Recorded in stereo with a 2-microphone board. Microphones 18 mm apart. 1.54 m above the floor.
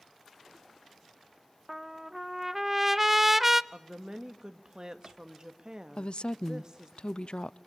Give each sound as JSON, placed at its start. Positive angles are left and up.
{"t": 1.7, "sound": "a trumpet", "side_deg": -10, "distance_m": 0.5}
{"t": 3.7, "sound": "a woman speaking", "side_deg": -35, "distance_m": 1.7}
{"t": 6.0, "sound": "a woman speaking", "side_deg": 55, "distance_m": 0.6}